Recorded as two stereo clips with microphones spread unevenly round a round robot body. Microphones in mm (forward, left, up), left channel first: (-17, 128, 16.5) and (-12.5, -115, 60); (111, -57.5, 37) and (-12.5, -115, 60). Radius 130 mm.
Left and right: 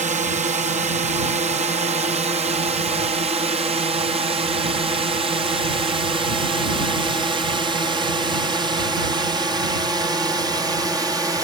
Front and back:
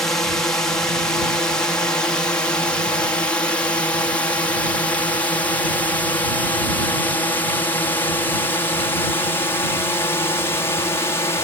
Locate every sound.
0.0 s a drone: 35° right; by 11.4 s 5° right